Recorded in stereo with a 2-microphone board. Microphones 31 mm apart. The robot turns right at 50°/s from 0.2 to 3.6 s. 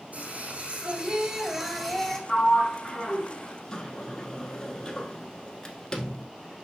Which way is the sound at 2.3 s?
20° left (ahead or behind).